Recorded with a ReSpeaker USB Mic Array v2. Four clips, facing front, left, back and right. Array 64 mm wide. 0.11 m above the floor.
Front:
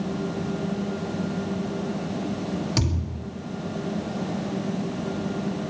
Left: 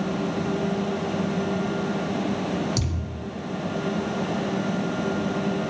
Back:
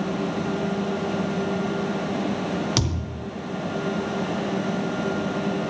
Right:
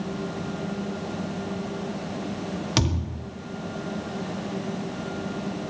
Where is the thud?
115° right, 2.5 m.